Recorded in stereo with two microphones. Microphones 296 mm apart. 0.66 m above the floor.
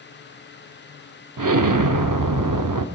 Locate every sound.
1.4 s an explosion: 80° right, 0.6 m